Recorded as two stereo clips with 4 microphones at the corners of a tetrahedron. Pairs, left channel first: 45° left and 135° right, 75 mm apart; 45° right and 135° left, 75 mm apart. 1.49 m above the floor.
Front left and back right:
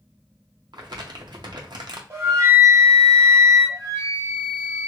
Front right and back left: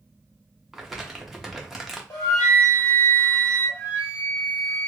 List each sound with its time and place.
0.7 s crumpling: 140° right, 0.7 m
2.1 s a flute: 85° right, 1.4 m
3.7 s a flute: straight ahead, 1.5 m